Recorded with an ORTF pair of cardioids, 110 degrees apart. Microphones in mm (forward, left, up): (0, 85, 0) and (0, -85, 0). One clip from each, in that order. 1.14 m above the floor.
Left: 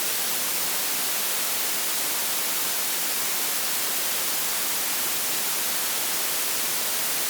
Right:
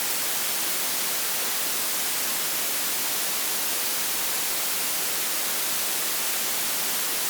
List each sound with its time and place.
Only background noise.